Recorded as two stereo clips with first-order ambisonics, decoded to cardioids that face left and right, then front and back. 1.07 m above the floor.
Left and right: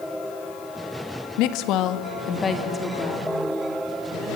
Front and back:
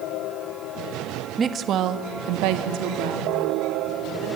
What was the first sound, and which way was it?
A woman speaking, 110° left.